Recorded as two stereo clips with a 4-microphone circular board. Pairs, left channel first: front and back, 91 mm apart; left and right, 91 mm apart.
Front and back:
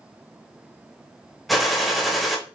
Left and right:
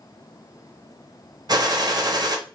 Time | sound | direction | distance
1.5 | a gunshot | 90° right | 0.6 m